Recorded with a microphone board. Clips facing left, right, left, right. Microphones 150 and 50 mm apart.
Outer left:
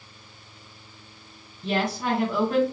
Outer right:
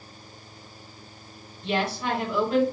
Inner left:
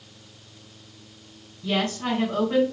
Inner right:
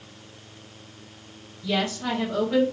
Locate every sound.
1.6 s a woman speaking: 45° left (ahead or behind), 2 m